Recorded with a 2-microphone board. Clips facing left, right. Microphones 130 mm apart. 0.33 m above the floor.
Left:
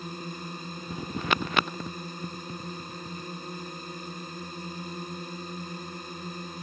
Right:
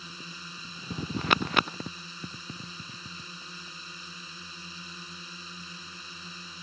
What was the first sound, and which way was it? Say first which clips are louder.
A drone: left 9 dB; 50° left (ahead or behind).